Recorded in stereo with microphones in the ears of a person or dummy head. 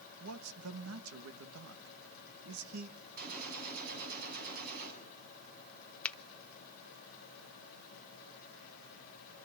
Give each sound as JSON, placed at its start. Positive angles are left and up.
{"t": 0.2, "sound": "a man speaking", "side_deg": -90, "distance_m": 2.0}
{"t": 3.2, "sound": "a gunshot", "side_deg": -55, "distance_m": 7.0}
{"t": 6.0, "sound": "a finger snap", "side_deg": 5, "distance_m": 0.8}